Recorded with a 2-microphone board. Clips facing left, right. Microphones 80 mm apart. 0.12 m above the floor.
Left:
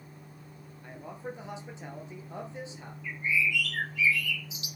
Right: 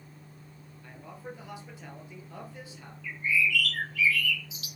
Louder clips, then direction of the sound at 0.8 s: Left 3 dB; 25° left (ahead or behind).